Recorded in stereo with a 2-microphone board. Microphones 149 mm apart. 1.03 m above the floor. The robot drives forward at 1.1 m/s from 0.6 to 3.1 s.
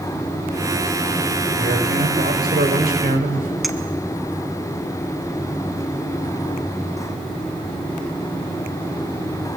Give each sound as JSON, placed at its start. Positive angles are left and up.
{"t": 1.6, "sound": "a man speaking", "side_deg": -75, "distance_m": 4.5}
{"t": 3.6, "sound": "a clink", "side_deg": 0, "distance_m": 1.1}